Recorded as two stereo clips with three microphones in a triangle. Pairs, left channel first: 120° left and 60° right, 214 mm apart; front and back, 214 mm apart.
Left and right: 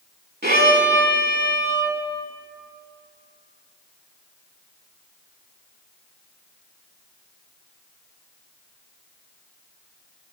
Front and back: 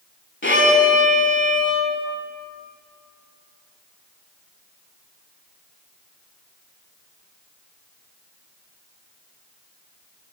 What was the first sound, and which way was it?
A violin, 20° right.